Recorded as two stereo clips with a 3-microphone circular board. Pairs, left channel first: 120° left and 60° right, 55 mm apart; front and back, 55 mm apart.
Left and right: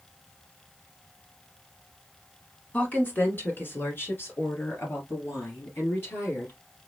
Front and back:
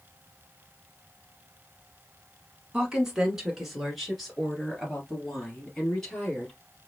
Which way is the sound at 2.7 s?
120° left.